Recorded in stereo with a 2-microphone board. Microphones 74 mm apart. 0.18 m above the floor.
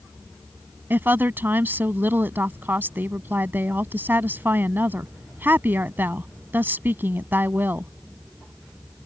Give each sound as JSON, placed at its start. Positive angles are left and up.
{"t": 0.9, "sound": "a woman speaking", "side_deg": -30}